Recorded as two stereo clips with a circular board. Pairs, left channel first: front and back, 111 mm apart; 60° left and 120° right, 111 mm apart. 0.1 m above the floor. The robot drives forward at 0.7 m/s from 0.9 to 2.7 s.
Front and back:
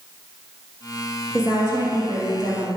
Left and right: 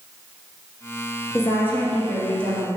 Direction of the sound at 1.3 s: 120° left.